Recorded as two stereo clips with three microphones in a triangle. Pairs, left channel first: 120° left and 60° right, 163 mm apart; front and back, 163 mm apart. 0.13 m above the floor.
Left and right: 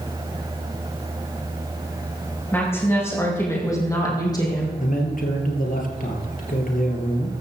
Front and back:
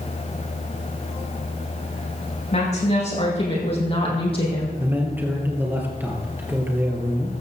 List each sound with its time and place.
2.5 s a woman speaking: 45° left, 6 m; by 4.7 s 55° left, 4 m
4.8 s a man speaking: 105° left, 3 m